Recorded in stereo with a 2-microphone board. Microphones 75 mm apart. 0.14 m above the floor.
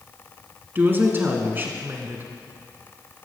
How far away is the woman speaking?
About 1.6 m.